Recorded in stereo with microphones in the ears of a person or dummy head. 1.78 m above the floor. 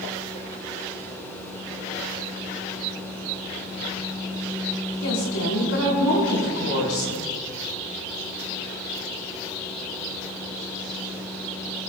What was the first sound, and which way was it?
A woman speaking, 80° left.